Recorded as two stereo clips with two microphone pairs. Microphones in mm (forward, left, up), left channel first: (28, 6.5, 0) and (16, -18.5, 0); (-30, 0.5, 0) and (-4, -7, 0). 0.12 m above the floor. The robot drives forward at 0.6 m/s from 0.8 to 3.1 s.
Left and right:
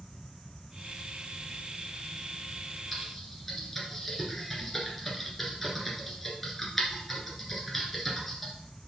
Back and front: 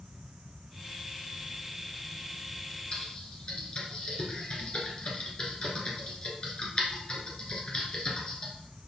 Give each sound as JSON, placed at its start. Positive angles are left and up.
{"t": 2.9, "sound": "typing on a keyboard", "azimuth_deg": 140, "distance_m": 1.8}